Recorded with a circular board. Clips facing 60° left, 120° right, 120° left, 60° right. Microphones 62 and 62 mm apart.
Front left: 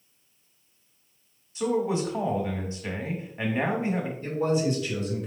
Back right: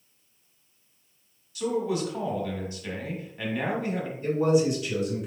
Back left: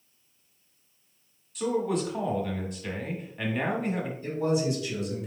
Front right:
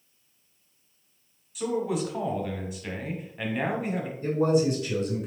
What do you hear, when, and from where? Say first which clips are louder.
1.6 s a man speaking: front left 2 dB, back left 1 dB; 25° left, 1.1 m
4.2 s a man speaking: back right 4 dB, front right 5 dB; 40° right, 1.9 m